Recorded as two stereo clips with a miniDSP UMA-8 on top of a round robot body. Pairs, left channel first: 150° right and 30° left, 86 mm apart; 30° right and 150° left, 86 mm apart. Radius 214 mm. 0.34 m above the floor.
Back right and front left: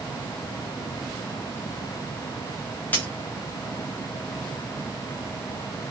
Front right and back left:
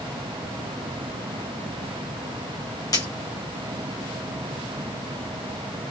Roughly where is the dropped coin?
Right.